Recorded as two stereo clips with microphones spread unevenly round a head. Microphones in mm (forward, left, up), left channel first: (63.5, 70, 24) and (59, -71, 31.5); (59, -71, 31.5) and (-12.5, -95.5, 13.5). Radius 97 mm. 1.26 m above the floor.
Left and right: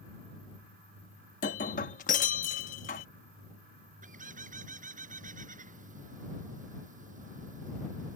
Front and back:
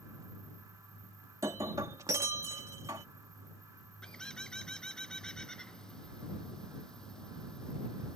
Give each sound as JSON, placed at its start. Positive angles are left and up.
{"t": 1.4, "sound": "breaking glass", "azimuth_deg": 125}
{"t": 4.0, "sound": "a bird", "azimuth_deg": -60}